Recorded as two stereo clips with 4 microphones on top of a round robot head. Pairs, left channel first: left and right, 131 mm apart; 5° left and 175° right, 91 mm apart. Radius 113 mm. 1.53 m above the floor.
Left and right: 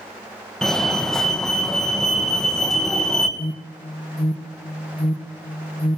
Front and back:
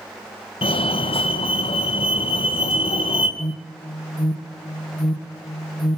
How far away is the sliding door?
No sliding door in this recording.